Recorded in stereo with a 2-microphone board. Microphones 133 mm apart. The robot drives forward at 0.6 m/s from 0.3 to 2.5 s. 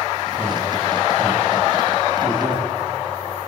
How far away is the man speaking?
About 7 m.